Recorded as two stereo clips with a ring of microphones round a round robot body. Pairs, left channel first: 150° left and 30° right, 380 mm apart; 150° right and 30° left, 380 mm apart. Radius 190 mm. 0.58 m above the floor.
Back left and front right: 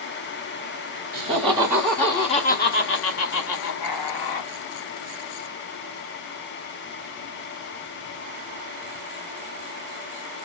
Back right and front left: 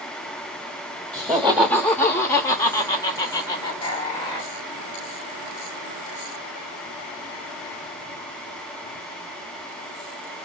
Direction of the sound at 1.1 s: 60° right.